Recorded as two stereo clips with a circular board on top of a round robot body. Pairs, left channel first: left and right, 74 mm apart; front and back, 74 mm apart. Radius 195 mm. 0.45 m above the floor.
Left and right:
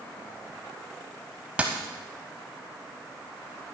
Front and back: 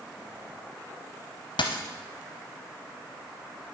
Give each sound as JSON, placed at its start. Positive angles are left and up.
{"t": 1.6, "sound": "a dropped coin", "azimuth_deg": -15, "distance_m": 0.5}